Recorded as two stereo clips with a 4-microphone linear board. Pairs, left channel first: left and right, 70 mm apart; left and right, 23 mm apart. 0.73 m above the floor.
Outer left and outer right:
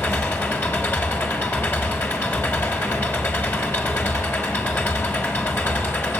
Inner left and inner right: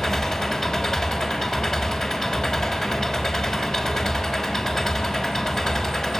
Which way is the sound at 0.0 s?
35° left (ahead or behind).